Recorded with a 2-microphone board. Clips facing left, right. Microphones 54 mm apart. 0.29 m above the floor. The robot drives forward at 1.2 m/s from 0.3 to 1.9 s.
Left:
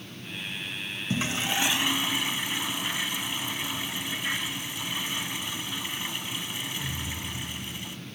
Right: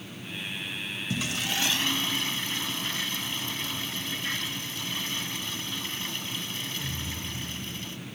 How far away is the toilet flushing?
About 0.6 m.